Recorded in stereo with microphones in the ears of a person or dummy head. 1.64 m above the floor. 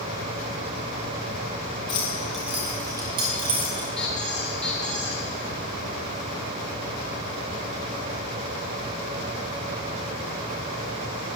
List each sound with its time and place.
1.9 s keys jangling: 25° left (ahead or behind), 0.6 m; by 3.9 s 25° right (ahead or behind), 1.5 m
4.0 s a squeak: 5° left (ahead or behind), 1.0 m